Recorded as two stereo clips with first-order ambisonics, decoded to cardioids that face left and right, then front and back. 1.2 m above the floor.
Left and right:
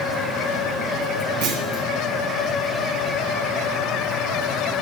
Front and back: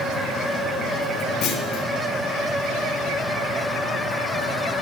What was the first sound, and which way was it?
A clunk, 60° right.